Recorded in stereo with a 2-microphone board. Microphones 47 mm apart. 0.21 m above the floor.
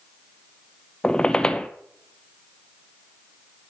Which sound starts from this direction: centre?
A squeak, at 1.0 s.